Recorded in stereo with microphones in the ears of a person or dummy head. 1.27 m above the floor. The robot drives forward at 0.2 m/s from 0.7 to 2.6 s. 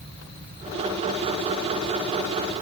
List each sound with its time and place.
Only background noise.